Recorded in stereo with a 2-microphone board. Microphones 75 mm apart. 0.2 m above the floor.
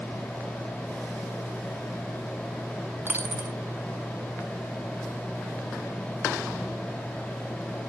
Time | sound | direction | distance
3.1 | a dropped coin | 25° right (ahead or behind) | 0.8 m